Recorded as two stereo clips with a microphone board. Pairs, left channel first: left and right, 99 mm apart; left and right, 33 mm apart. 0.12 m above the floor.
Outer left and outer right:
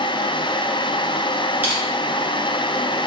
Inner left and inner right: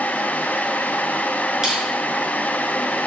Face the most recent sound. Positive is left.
turn(degrees=-20)  # may be behind; listen again after turning